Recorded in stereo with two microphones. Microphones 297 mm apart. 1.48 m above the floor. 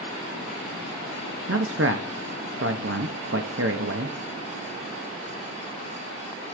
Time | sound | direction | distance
1.5 | a man speaking | 50° right (ahead or behind) | 0.9 m